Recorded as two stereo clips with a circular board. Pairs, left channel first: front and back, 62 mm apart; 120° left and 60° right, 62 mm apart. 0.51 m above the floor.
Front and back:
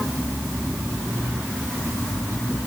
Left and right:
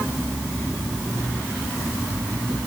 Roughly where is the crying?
I don't hear crying.